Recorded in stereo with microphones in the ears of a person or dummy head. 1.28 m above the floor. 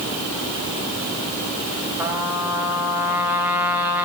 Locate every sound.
2.0 s a trumpet: 15° right (ahead or behind), 5.5 m